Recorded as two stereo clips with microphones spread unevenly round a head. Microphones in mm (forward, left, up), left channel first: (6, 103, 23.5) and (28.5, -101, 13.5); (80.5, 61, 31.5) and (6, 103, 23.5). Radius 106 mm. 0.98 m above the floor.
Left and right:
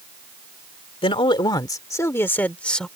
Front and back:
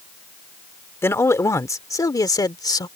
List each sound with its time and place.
1.0 s a man speaking: 30° left; by 2.9 s 10° left